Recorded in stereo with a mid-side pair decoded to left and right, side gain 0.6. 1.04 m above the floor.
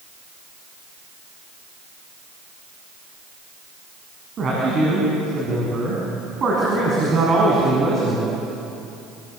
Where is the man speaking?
40° right, 8 m.